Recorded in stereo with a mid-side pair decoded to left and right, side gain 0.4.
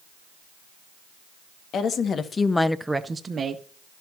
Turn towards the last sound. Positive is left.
turn(degrees=-50)